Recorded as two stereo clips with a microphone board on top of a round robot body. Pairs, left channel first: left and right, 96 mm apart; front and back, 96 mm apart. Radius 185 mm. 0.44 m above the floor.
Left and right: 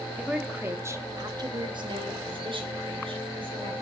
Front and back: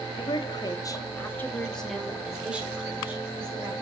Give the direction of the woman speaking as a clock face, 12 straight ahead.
12 o'clock.